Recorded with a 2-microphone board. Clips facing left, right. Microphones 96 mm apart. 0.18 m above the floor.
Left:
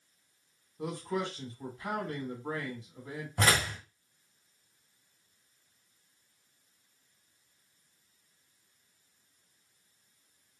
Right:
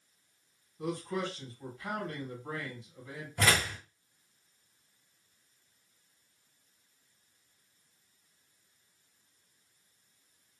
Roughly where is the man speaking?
Left.